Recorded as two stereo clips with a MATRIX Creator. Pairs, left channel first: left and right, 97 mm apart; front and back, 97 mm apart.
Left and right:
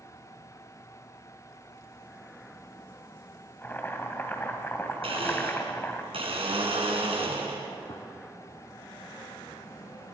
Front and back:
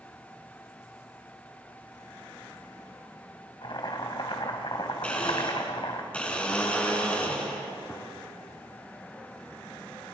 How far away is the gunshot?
About 3 m.